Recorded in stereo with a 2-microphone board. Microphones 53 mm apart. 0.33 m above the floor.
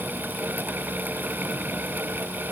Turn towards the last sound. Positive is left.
No sound to turn to.